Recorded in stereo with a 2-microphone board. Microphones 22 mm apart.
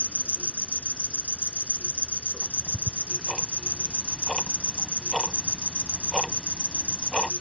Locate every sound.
0.0 s an insect: 50° left (ahead or behind)
2.4 s ticking: 5° right (ahead or behind)